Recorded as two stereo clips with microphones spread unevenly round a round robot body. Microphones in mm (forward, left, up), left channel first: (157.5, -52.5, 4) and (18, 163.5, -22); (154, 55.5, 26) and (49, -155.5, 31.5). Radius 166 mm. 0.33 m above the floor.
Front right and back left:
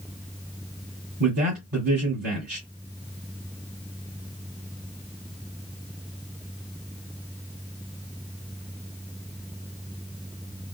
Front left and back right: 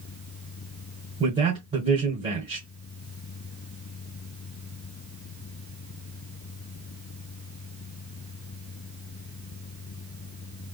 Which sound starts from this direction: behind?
A man speaking, at 1.2 s.